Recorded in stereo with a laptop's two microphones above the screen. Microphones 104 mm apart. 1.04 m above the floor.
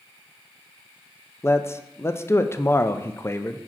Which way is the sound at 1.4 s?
25° left (ahead or behind).